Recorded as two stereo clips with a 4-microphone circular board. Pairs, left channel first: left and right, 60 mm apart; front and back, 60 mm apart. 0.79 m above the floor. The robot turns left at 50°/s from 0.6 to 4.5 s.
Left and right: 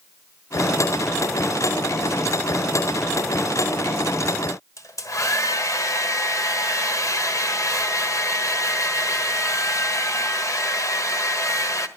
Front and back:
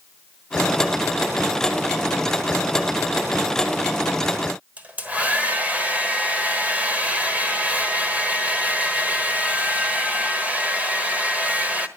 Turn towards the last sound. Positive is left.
turn(degrees=115)